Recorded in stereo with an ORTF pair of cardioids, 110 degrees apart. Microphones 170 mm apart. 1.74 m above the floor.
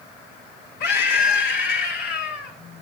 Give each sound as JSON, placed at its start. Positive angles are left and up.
{"t": 0.8, "sound": "a scream", "azimuth_deg": 65, "distance_m": 4.5}